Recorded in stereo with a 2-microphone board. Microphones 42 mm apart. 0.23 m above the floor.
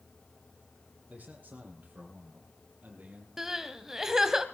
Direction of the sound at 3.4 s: 15° right (ahead or behind).